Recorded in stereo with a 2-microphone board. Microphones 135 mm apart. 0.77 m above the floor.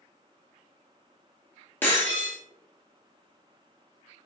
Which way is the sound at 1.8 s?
15° left (ahead or behind).